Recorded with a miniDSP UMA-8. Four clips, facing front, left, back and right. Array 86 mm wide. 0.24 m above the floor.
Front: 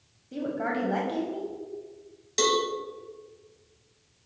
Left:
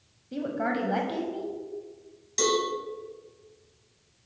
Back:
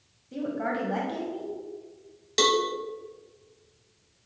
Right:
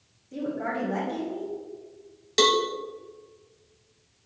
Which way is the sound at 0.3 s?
80° left.